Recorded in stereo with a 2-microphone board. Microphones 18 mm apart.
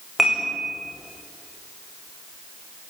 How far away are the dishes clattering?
About 9 m.